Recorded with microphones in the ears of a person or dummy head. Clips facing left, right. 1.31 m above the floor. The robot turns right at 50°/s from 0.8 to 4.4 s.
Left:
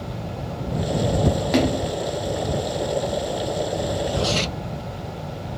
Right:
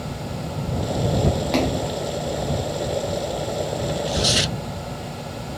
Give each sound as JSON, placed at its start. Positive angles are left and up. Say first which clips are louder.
{"t": 1.5, "sound": "a splash", "louder": "left 2 dB", "side_deg": 15}
{"t": 3.9, "sound": "tearing paper", "louder": "even", "side_deg": -40}